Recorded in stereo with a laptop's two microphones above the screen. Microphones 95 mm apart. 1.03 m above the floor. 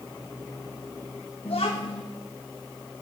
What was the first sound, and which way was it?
A child speaking, 80° left.